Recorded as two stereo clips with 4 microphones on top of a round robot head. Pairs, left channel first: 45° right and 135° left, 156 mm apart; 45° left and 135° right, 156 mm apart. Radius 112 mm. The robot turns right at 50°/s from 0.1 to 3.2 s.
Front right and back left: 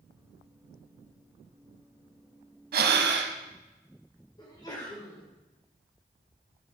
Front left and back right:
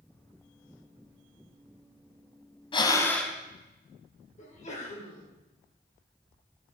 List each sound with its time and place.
2.7 s breathing: 105° left, 0.9 m; by 3.4 s 130° left, 0.9 m
4.4 s a sneeze: 15° left, 2.5 m